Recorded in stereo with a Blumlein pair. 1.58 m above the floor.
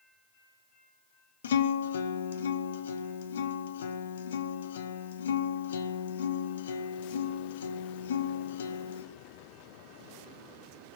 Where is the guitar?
60° left, 0.9 m.